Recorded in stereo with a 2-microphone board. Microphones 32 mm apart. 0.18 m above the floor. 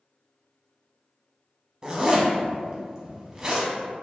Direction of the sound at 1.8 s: 20° right (ahead or behind).